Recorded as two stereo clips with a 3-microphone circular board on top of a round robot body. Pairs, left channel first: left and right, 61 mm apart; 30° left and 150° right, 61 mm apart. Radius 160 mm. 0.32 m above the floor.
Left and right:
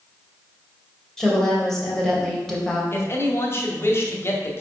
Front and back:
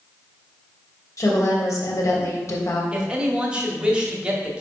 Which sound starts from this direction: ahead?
A woman speaking, at 1.2 s.